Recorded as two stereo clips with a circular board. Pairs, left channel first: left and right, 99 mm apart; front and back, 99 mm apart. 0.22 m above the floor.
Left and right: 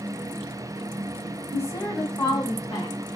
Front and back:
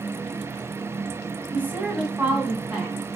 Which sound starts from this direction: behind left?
A woman speaking, at 1.5 s.